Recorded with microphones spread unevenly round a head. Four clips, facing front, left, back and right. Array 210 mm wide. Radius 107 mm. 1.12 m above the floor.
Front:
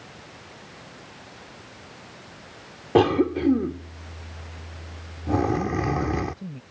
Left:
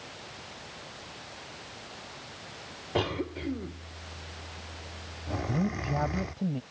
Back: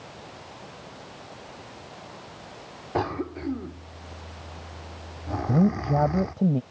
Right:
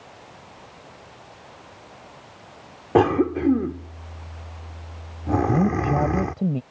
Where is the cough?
50° right.